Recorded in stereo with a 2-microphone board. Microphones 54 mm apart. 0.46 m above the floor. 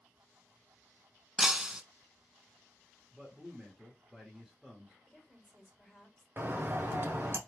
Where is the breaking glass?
10° right (ahead or behind), 0.5 m.